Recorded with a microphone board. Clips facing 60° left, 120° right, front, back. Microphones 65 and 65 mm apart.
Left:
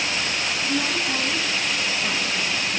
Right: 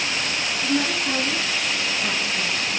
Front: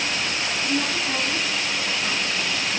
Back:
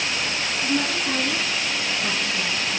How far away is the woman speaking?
About 2 m.